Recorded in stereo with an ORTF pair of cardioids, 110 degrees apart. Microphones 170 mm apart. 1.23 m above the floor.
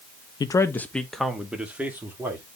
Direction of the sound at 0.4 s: 25° left.